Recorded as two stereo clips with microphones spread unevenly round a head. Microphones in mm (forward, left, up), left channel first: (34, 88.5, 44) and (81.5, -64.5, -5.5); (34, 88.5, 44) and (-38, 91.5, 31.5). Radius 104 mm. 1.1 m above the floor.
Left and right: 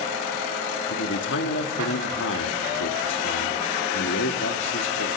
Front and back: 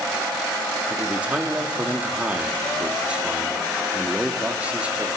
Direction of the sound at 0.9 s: 105° left.